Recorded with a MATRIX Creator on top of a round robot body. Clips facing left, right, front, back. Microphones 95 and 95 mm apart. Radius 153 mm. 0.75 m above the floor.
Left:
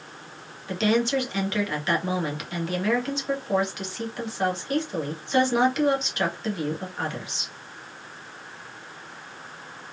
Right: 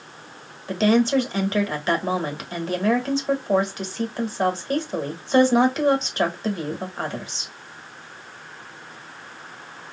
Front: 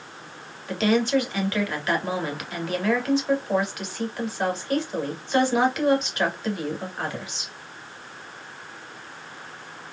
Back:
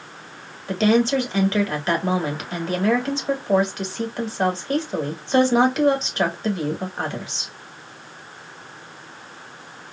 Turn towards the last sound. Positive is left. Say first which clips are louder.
# right 4 dB, back 3 dB
turn(degrees=-130)